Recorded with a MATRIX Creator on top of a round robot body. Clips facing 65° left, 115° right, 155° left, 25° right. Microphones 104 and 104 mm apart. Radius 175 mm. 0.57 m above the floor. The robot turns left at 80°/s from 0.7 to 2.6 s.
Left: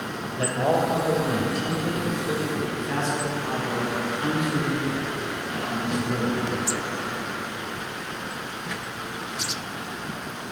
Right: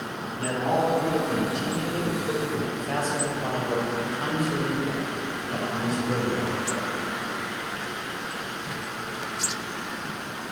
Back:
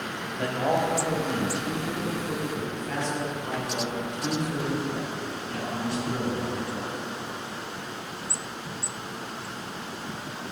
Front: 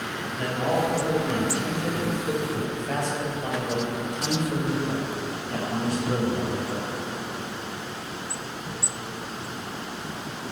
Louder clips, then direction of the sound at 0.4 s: Left 2 dB, even; 90° left.